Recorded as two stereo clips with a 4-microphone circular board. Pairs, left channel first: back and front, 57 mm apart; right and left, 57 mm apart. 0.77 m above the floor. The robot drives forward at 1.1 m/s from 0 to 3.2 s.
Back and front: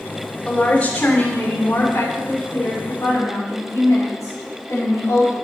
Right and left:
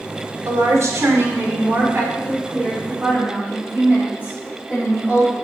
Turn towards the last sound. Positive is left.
turn(degrees=150)